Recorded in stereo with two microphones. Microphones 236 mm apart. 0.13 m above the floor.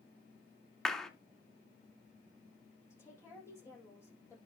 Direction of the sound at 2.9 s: 10° left (ahead or behind).